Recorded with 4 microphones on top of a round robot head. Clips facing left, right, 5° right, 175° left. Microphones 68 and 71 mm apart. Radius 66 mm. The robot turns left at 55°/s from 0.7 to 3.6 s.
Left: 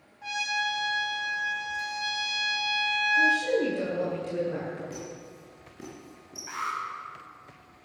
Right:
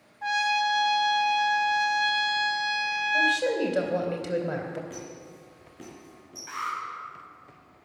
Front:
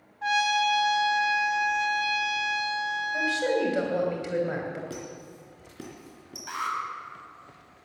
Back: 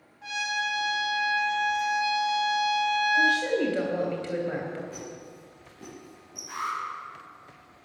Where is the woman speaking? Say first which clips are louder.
Left 1 dB, even; 60° right, 3 m; by 4.8 s 85° right, 3 m.